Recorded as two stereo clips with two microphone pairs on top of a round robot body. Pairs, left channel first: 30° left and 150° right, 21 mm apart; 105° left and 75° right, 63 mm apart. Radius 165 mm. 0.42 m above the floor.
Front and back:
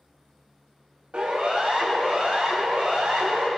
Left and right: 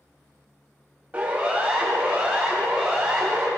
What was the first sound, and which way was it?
A siren, 140° right.